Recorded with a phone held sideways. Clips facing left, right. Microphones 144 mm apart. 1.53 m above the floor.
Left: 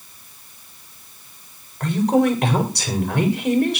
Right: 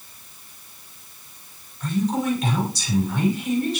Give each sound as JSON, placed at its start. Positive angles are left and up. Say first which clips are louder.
{"t": 1.8, "sound": "a woman speaking", "louder": "left 6 dB", "side_deg": 65, "distance_m": 6.5}